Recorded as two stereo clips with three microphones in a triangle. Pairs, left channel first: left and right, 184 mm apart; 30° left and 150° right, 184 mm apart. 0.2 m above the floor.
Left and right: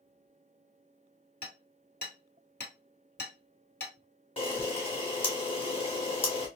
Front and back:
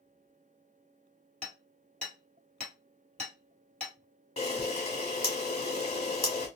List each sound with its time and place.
1.4 s hammering: 115° left, 1.6 m
4.4 s a camera shutter: 55° left, 1.4 m